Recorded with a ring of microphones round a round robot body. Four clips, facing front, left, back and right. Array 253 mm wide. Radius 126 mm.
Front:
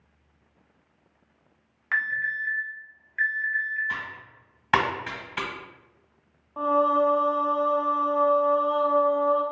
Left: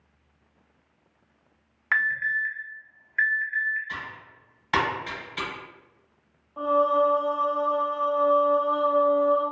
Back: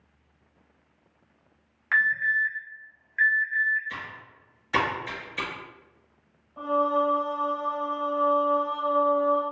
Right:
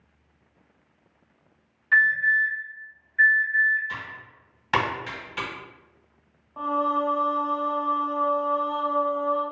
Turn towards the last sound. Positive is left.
turn(degrees=-15)